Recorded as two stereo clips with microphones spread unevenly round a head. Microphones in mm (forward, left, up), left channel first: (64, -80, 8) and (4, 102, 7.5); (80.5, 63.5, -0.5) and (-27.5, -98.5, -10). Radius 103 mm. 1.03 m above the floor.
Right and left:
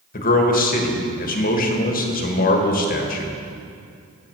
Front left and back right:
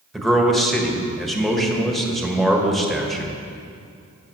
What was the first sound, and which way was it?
A man speaking, 35° right.